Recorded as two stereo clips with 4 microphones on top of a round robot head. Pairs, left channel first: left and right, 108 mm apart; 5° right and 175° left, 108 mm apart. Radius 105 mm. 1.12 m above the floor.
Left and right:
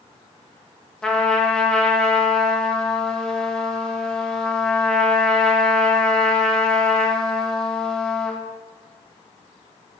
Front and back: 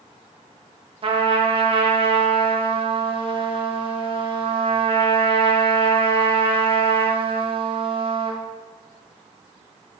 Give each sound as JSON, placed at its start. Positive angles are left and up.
{"t": 1.0, "sound": "a trumpet", "azimuth_deg": 170, "distance_m": 1.0}